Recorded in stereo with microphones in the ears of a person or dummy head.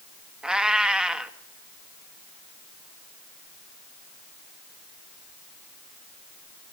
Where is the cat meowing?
Centre (ahead or behind), 1.1 m.